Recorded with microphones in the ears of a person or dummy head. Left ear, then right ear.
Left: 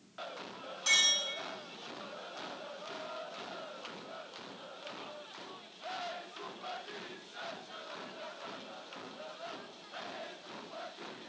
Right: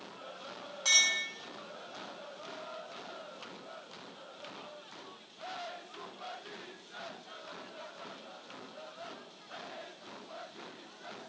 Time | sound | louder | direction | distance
0.8 | a clink | right 1 dB | 55° right (ahead or behind) | 0.7 m